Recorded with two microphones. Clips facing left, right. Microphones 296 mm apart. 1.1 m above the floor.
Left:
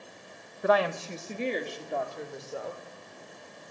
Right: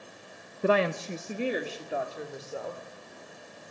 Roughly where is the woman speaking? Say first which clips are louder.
Right 1 dB; right.